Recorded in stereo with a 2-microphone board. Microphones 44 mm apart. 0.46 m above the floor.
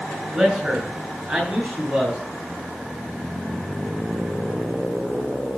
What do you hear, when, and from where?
0.3 s a man speaking: 30° right (ahead or behind), 6 m